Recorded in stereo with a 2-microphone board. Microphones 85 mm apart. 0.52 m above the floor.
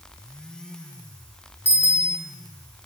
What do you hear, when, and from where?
1.6 s a bicycle bell: 20° left (ahead or behind), 7 m